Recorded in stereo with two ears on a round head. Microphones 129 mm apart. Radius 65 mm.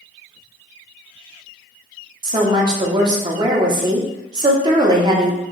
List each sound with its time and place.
2.2 s a woman speaking: 30° right (ahead or behind), 0.7 m